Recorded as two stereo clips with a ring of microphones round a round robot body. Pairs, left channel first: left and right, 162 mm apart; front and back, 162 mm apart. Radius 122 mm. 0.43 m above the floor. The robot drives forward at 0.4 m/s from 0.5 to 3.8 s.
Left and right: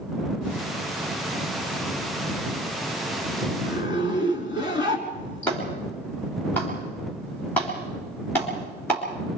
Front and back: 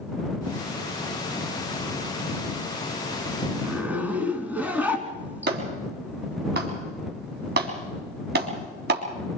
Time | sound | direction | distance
3.6 | a zipper | 100° left | 3 m
5.5 | a clap | 170° left | 4 m